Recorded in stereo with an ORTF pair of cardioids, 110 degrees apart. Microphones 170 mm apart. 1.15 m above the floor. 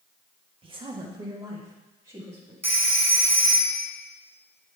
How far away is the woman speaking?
About 1.6 m.